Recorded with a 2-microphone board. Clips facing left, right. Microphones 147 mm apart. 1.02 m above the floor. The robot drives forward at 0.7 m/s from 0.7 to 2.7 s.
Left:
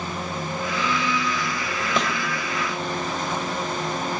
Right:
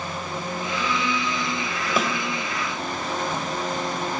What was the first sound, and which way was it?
A thud, 5° right (ahead or behind).